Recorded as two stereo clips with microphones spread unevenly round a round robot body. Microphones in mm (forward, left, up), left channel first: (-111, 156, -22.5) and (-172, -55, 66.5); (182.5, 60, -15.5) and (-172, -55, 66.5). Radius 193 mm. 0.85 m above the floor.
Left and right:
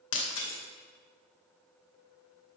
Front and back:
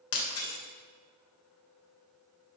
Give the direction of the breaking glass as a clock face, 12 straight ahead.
10 o'clock.